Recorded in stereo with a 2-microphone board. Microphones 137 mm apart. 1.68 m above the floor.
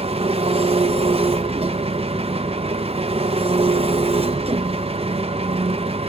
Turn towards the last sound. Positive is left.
turn(degrees=-45)  # may be behind; listen again after turning